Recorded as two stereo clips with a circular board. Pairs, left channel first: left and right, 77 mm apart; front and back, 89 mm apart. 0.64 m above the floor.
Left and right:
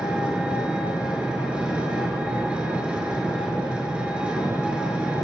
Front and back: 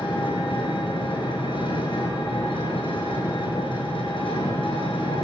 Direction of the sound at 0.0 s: 15° right.